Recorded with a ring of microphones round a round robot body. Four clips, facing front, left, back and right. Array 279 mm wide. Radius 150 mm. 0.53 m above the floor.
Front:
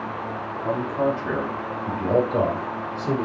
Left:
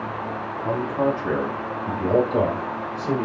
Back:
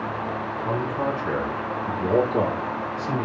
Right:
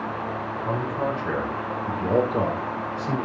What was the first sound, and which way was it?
A man speaking, 50° left.